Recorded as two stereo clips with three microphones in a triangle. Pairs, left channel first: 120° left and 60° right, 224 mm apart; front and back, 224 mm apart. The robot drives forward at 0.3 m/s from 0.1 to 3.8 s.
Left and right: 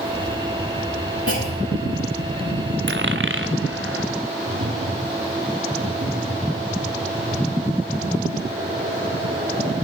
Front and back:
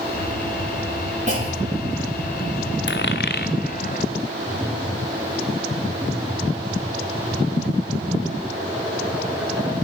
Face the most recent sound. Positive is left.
turn(degrees=-95)